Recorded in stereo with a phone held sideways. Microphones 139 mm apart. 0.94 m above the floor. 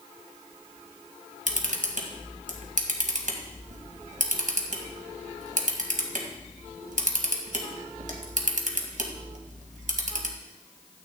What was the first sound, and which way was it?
A camera shutter, 70° right (ahead or behind).